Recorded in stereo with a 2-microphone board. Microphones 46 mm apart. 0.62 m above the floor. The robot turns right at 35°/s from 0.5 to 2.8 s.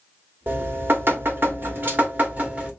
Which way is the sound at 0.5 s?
110° right.